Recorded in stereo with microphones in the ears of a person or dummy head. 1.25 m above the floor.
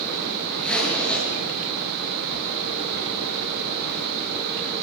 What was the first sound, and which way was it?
A zipper, 5° left (ahead or behind).